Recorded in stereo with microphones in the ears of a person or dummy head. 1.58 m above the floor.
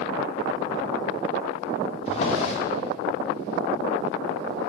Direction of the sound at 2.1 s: 40° left (ahead or behind).